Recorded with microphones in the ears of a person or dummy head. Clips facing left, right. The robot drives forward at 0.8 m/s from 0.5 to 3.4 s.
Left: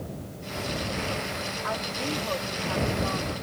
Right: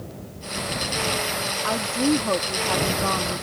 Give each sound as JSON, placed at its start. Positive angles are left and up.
{"t": 1.6, "sound": "a woman speaking", "side_deg": -55}